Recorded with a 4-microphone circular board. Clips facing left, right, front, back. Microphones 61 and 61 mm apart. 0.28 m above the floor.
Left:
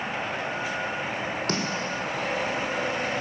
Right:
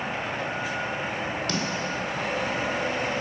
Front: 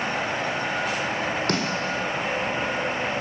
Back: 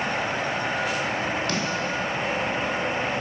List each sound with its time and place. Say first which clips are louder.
1.5 s a snare drum: even, front 1 dB; 45° left, 3.5 m